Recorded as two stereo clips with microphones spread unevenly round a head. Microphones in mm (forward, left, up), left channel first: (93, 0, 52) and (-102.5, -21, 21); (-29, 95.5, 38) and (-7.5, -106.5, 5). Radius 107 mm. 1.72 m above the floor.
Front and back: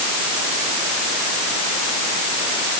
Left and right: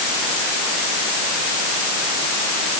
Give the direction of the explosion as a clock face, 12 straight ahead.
I don't hear an explosion.